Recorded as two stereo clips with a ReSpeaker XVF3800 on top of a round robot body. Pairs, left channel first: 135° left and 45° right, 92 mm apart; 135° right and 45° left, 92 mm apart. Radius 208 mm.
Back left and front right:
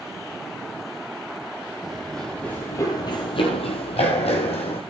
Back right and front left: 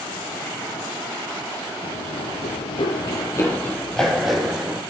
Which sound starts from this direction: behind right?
Running footsteps, at 1.8 s.